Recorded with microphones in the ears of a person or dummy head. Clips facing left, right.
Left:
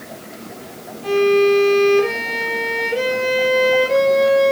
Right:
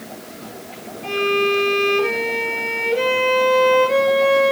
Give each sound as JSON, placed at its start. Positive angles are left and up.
{"t": 1.0, "sound": "a violin", "side_deg": 15, "distance_m": 4.0}